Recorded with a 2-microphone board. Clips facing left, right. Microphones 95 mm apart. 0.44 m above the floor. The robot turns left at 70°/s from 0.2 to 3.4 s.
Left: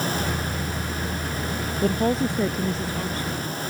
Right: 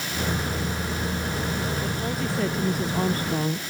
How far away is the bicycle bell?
I don't hear a bicycle bell.